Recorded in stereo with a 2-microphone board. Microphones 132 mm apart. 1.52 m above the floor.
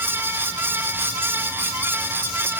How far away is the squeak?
No squeak in this recording.